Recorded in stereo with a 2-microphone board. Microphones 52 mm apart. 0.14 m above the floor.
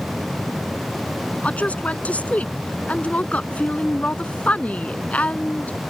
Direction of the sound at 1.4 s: 30° left (ahead or behind).